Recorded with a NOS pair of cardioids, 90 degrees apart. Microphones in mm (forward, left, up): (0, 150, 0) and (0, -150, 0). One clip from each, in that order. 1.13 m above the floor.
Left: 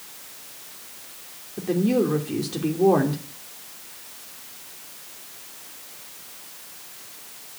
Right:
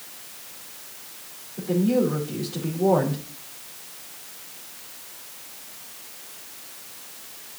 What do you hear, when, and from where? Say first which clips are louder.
1.6 s a woman speaking: even; 55° left, 3 m